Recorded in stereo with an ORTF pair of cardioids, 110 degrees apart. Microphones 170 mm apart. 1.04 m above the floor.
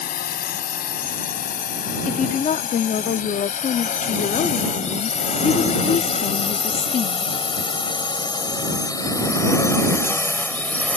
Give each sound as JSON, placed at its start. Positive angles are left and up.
{"t": 0.0, "sound": "a drone", "azimuth_deg": 65}
{"t": 2.1, "sound": "a woman speaking", "azimuth_deg": 50}